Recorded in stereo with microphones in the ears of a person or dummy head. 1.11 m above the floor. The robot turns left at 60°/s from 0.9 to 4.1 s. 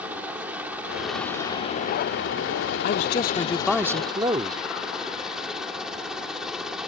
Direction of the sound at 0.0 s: 170° right.